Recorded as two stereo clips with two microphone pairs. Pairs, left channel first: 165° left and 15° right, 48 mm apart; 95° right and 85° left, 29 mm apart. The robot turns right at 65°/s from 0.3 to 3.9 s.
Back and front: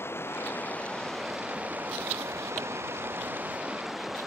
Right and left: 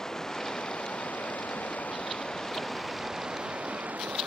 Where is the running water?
165° right; by 4.3 s 70° left.